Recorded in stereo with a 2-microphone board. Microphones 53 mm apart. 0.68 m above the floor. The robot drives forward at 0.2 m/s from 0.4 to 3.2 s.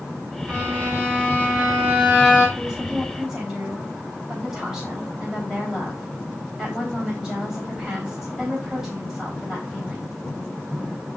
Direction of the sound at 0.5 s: 30° right (ahead or behind).